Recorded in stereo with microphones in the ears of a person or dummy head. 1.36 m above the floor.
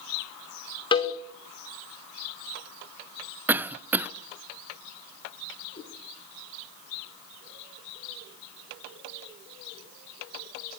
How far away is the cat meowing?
About 8 m.